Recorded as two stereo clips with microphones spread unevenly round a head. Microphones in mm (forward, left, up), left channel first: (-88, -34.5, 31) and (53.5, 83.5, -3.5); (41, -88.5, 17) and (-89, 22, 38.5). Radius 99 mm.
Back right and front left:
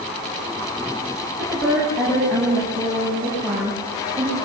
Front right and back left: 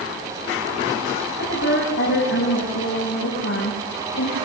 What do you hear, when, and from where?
1.4 s a woman speaking: 45° right, 8 m